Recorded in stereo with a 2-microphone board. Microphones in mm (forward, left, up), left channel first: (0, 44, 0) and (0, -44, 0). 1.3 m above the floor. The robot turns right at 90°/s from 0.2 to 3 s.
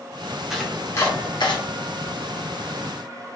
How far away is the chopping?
About 1.0 m.